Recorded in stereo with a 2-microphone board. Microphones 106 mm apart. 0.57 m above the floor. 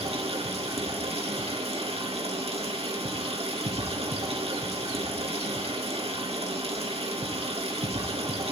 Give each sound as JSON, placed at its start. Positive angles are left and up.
{"t": 0.0, "sound": "running water", "side_deg": -80, "distance_m": 3.0}